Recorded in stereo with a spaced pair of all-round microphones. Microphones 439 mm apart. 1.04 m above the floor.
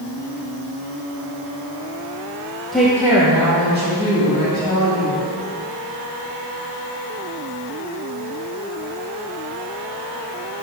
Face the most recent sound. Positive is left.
turn(degrees=-35)  # may be behind; listen again after turning